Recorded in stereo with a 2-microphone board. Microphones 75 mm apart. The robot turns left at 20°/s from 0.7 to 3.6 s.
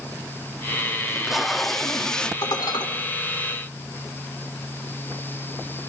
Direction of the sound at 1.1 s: 5° right (ahead or behind).